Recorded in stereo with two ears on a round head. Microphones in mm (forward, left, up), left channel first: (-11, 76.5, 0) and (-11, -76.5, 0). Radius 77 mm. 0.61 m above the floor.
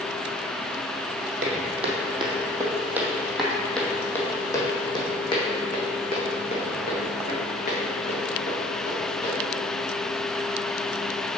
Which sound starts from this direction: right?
Footsteps, at 1.4 s.